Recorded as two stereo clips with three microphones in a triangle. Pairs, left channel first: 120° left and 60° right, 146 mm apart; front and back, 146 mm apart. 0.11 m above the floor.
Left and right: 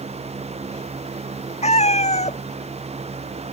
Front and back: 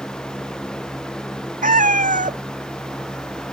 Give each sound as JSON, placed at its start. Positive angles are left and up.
{"t": 1.6, "sound": "a cat meowing", "azimuth_deg": 160}